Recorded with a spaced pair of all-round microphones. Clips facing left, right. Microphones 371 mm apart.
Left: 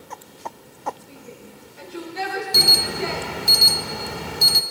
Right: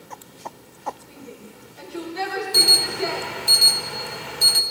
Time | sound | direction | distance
1.1 | a shout | centre (ahead or behind) | 4.5 m
2.5 | an alarm | 55° left (ahead or behind) | 0.6 m